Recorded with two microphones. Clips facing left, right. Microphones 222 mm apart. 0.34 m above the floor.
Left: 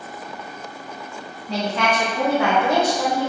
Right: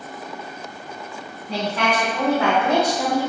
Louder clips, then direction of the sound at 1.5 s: Left 1 dB; 30° left (ahead or behind).